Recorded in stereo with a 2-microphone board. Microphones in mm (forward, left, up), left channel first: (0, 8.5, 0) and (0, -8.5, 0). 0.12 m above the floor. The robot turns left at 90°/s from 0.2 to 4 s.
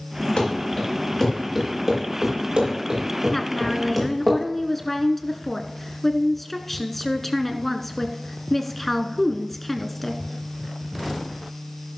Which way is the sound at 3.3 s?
20° left (ahead or behind).